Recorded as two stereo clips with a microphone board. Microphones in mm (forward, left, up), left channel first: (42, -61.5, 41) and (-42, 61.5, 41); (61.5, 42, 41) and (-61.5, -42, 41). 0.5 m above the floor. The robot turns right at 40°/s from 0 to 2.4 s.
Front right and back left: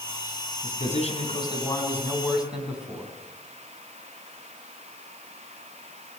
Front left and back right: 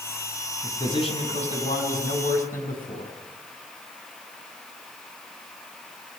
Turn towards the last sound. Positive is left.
turn(degrees=40)